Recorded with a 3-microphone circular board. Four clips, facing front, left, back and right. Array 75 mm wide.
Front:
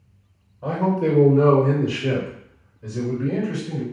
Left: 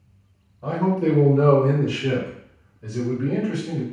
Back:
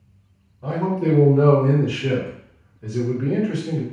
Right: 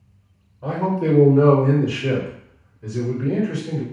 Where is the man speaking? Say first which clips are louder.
Even, front 1 dB; 45° right, 1.5 m; by 3.8 s 170° right, 1.9 m.